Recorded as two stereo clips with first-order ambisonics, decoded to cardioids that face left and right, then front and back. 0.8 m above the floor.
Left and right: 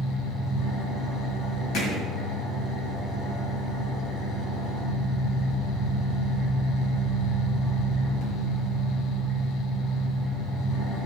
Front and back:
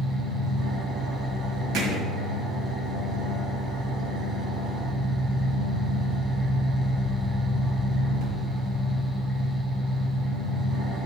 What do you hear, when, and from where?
0.0 s an engine running: 120° left, 2.5 m
1.7 s hammering: 130° left, 1.8 m